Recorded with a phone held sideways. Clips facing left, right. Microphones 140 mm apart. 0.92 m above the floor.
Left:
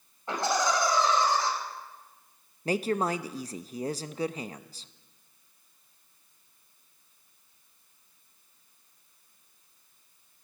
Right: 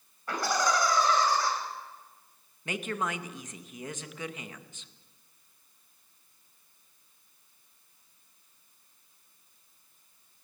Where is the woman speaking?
35° left (ahead or behind), 0.6 m.